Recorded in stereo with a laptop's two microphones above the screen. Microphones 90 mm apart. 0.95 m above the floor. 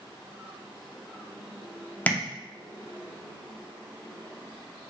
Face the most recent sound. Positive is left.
turn(degrees=20)  # may be behind; listen again after turning